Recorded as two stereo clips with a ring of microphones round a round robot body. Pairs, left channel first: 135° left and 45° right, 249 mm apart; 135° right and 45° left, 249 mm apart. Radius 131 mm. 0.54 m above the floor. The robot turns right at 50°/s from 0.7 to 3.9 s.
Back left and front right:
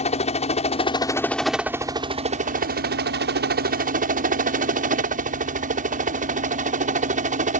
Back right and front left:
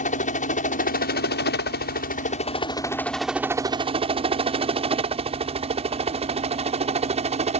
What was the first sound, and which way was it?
A helicopter, 175° right.